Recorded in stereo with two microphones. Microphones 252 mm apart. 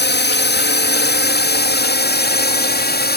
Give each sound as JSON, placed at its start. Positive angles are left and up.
{"t": 0.0, "sound": "a drone", "side_deg": 40}